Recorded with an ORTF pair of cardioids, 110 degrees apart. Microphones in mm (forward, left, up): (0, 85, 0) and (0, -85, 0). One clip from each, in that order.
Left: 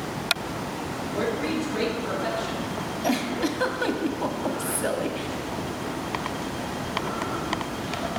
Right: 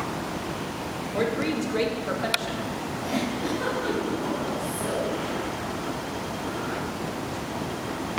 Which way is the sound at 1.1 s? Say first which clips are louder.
Right 1 dB; 35° right.